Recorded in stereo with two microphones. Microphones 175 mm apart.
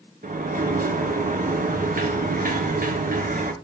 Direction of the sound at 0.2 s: 55° right (ahead or behind).